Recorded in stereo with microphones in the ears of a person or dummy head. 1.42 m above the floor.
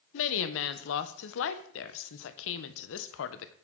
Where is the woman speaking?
75° left (ahead or behind), 0.7 m.